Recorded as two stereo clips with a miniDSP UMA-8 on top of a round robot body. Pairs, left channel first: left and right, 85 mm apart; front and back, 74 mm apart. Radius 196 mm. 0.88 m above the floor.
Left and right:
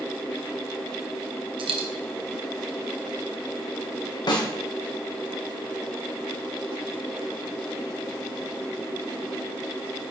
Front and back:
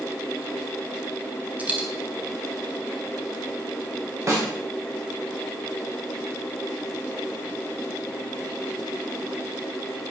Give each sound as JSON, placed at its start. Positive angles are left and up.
{"t": 1.6, "sound": "a dropped coin", "azimuth_deg": -110, "distance_m": 1.4}
{"t": 4.3, "sound": "a snare drum", "azimuth_deg": 130, "distance_m": 2.5}